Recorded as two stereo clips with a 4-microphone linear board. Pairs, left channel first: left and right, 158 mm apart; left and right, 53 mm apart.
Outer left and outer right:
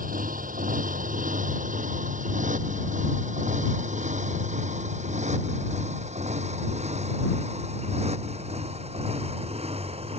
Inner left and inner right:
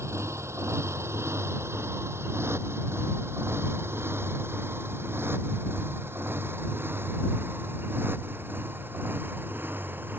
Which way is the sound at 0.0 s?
60° right (ahead or behind).